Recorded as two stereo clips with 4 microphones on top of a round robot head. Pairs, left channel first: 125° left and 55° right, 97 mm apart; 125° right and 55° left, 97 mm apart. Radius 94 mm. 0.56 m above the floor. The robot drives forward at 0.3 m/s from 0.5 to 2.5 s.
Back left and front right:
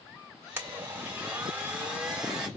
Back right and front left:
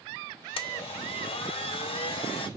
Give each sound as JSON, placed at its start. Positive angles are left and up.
{"t": 0.6, "sound": "a blender", "azimuth_deg": -120, "distance_m": 1.6}